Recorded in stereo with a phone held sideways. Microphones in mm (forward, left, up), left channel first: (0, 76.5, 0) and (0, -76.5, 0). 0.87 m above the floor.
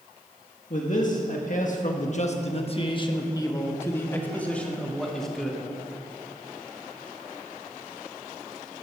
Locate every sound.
0.7 s a man speaking: 55° left (ahead or behind), 1.5 m; by 5.6 s centre (ahead or behind), 2.5 m